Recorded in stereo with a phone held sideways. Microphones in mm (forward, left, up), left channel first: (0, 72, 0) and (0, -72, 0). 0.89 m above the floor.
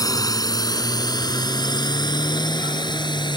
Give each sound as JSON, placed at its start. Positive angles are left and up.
{"t": 0.0, "sound": "a drone", "side_deg": 25}